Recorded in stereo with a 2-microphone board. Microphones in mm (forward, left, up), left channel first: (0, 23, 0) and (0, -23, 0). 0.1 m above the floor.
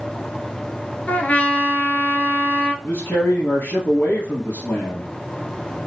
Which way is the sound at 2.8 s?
40° left (ahead or behind).